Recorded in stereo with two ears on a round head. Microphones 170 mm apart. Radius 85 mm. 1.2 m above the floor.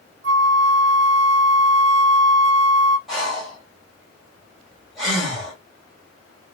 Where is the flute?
60° right (ahead or behind), 0.7 m.